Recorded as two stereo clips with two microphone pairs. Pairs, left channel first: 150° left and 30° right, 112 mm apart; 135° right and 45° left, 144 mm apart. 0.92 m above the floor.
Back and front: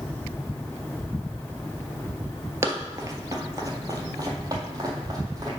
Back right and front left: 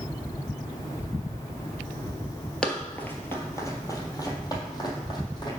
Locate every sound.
2.6 s running footsteps: 60° right, 1.0 m; by 5.5 s 80° right, 2 m